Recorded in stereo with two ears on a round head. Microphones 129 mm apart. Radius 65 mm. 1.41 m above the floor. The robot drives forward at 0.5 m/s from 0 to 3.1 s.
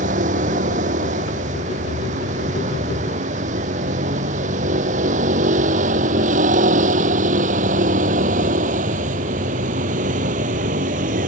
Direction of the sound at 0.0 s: 60° right (ahead or behind).